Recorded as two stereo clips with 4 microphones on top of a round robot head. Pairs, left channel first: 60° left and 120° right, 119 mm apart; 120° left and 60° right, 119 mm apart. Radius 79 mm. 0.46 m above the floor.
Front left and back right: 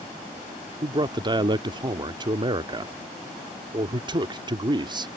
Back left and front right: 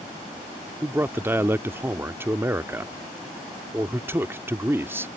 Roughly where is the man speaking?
Behind right.